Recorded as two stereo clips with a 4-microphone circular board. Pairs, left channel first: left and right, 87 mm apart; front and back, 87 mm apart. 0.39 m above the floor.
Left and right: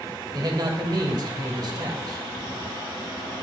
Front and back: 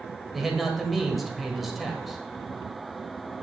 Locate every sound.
0.3 s a man speaking: 90° right, 1.5 m